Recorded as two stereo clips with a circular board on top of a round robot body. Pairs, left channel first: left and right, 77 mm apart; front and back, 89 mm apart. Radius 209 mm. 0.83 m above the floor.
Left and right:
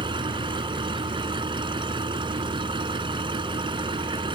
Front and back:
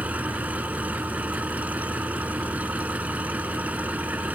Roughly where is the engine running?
Right.